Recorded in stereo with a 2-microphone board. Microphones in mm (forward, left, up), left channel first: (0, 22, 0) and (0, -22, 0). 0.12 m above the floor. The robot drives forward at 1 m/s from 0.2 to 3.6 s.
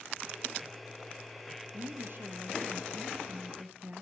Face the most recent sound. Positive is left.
turn(degrees=-40)  # may be behind; listen again after turning